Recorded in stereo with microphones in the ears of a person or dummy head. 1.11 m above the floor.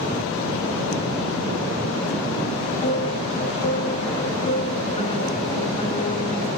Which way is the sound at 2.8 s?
30° left (ahead or behind).